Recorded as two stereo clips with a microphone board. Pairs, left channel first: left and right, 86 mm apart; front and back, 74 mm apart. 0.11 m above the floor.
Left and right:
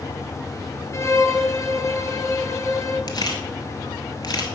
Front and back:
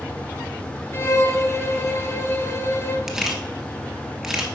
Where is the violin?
45° left, 0.9 m.